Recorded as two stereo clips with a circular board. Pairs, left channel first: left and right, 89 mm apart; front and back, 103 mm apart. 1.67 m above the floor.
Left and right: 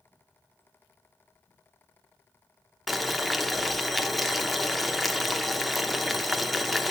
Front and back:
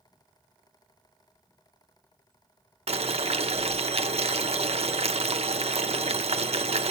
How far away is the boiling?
About 0.7 m.